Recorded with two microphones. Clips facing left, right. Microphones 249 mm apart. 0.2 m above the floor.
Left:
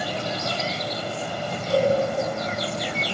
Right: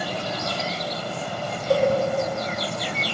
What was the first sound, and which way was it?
A cowbell, 65° right (ahead or behind).